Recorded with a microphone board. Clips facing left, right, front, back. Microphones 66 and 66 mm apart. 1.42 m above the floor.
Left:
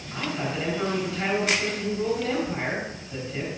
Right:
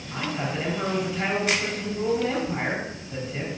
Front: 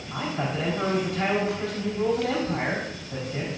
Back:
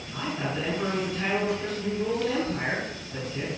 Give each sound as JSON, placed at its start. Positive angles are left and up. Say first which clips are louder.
{"t": 0.1, "sound": "a man speaking", "louder": "even, front 2 dB", "azimuth_deg": -10, "distance_m": 4.5}